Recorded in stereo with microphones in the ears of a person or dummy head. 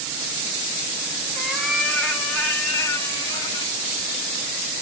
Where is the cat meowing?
10° right (ahead or behind), 2.5 m; by 3.8 s 20° left (ahead or behind), 2.5 m.